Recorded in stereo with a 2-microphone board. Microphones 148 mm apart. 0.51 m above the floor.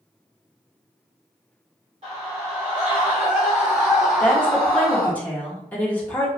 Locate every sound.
2.0 s a scream: 45° right (ahead or behind), 1.9 m; by 5.1 s 15° left (ahead or behind), 1.7 m
4.2 s a woman speaking: 10° left (ahead or behind), 1.1 m